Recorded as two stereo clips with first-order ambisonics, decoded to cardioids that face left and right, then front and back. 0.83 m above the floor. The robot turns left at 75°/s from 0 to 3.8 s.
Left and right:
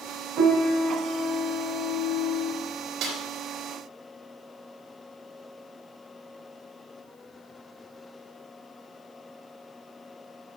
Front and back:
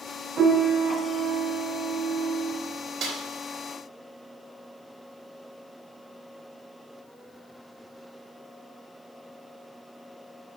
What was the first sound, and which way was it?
A piano, 115° right.